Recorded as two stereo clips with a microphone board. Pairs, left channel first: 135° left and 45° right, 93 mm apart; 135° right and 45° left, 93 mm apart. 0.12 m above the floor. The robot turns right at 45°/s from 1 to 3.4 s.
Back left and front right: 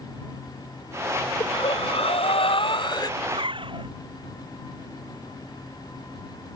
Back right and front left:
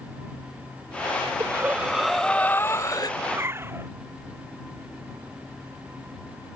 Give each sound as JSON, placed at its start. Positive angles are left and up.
{"t": 1.4, "sound": "breathing", "azimuth_deg": 105}
{"t": 3.2, "sound": "a zipper", "azimuth_deg": -30}